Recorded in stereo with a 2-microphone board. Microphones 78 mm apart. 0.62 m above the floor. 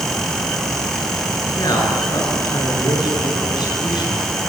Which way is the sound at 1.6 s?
60° left (ahead or behind).